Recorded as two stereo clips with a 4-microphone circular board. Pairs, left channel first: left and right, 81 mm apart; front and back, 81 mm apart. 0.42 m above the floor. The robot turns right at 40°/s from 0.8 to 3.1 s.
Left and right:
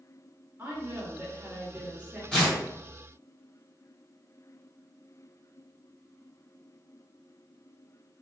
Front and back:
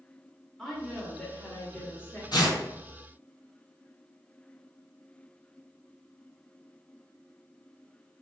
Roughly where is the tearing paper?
Ahead.